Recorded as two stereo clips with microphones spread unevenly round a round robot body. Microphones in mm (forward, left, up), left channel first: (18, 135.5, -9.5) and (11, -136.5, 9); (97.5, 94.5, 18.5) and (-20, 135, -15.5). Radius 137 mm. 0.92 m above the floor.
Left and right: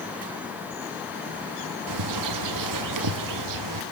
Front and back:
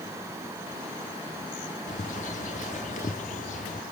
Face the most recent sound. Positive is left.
turn(degrees=-70)